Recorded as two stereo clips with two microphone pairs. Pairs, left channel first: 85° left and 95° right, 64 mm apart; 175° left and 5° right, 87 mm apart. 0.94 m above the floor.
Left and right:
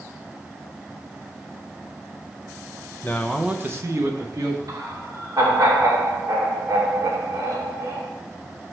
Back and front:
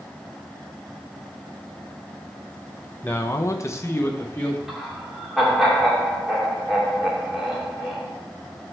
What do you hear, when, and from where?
3.0 s a man speaking: 120° left, 0.7 m; by 4.6 s 115° right, 2.0 m
4.7 s laughter: 90° right, 2.5 m